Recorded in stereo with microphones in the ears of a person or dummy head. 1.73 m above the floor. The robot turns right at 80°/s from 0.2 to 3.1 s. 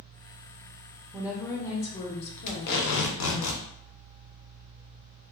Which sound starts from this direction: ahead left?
Tape being pulled, at 2.5 s.